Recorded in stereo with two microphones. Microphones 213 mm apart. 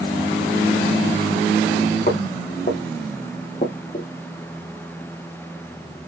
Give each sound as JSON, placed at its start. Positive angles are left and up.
{"t": 2.1, "sound": "footsteps", "side_deg": 45, "distance_m": 1.2}